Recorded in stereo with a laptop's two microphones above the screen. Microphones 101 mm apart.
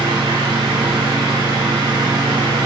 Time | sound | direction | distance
0.0 | a fan | 50° right (ahead or behind) | 2.5 m